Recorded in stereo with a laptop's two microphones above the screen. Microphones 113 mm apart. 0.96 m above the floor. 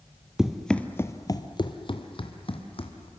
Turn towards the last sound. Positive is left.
turn(degrees=55)  # may be behind; listen again after turning